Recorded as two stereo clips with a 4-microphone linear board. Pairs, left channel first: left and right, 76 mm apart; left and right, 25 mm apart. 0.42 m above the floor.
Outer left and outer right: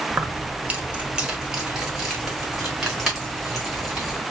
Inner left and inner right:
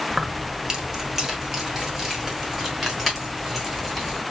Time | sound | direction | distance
0.1 | keys jangling | 30° right (ahead or behind) | 0.8 m